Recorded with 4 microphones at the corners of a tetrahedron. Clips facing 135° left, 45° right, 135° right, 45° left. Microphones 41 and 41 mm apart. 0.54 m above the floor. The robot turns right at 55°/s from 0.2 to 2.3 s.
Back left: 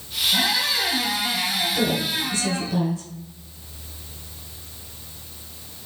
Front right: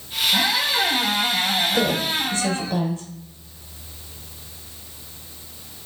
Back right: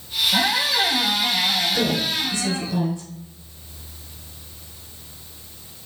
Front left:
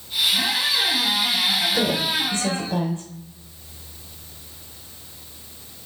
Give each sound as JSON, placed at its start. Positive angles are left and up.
{"t": 0.3, "sound": "a squeak", "azimuth_deg": -125, "distance_m": 1.6}
{"t": 1.7, "sound": "a woman speaking", "azimuth_deg": -25, "distance_m": 2.5}